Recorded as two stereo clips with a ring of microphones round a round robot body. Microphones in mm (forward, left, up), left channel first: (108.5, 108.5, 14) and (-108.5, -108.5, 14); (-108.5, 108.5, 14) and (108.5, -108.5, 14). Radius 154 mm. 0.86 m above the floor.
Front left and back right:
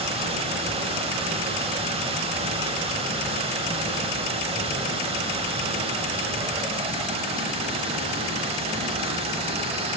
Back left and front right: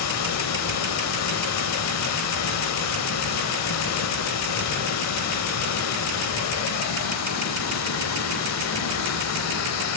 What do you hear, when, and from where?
0.0 s running water: 155° left, 0.9 m